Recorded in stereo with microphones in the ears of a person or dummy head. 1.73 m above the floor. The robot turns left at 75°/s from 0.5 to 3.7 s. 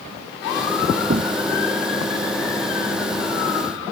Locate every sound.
1.1 s knocking: 40° right (ahead or behind); by 1.4 s 15° right (ahead or behind)